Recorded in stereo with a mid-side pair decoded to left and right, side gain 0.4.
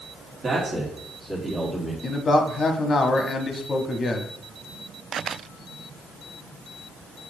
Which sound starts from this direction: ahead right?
A man speaking, at 0.4 s.